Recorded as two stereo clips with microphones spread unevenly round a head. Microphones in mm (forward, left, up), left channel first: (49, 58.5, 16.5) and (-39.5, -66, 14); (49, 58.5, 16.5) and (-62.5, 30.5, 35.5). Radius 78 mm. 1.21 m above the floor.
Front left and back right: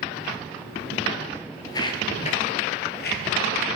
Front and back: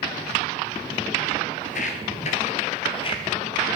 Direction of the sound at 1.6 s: 10° right.